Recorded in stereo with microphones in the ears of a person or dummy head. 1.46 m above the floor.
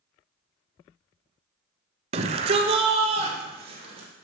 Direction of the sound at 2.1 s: 30° right (ahead or behind).